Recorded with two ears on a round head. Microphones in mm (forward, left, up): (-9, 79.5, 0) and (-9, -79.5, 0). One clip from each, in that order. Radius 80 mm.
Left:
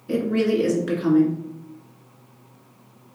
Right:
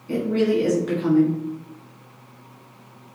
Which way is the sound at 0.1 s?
10° left (ahead or behind).